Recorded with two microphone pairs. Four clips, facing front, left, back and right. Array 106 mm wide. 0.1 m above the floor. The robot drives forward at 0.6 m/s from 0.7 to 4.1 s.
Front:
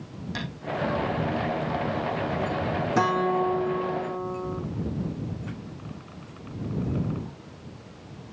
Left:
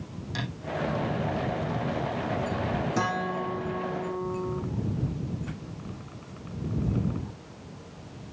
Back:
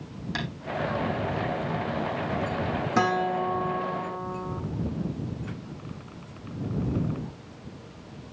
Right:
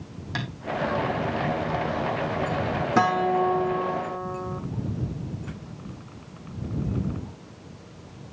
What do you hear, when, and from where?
0.3 s tapping: 115° right, 4 m
3.0 s a guitar: 115° right, 3.5 m; by 4.6 s 125° right, 4 m